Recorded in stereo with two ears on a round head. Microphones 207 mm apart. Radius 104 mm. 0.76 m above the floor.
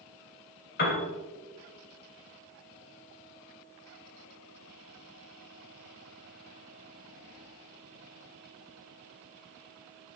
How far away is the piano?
About 3.5 m.